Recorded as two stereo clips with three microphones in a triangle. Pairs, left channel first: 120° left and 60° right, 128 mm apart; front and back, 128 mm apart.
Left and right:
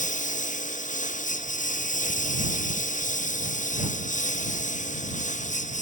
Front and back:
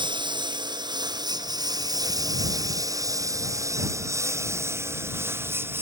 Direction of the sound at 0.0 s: 125° left.